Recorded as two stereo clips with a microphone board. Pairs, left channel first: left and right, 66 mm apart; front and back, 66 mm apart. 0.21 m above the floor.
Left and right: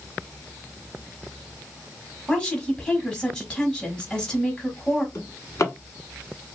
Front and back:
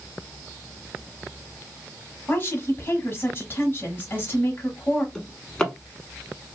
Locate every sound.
2.3 s a woman speaking: 20° left, 1.1 m
5.2 s a drawer: 75° left, 0.9 m